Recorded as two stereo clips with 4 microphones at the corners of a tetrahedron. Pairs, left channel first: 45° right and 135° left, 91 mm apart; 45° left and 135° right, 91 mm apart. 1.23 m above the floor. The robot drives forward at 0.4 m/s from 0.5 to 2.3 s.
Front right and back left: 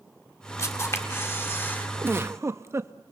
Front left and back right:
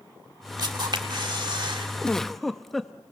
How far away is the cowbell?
No cowbell in this recording.